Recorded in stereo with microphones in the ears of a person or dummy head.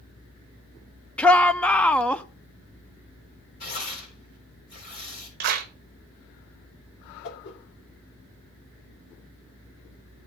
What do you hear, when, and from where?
1.2 s a shout: 5° left (ahead or behind), 0.6 m
3.6 s tearing paper: 55° left (ahead or behind), 4 m
5.4 s a clap: 55° right (ahead or behind), 1.0 m
7.2 s a whoosh: 65° left (ahead or behind), 2 m